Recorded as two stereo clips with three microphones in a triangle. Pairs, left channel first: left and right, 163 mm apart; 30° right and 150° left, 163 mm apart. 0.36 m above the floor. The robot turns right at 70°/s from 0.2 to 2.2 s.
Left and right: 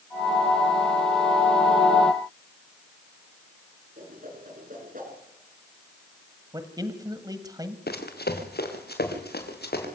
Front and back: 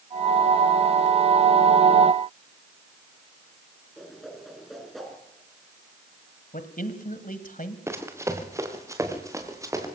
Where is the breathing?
No breathing in this recording.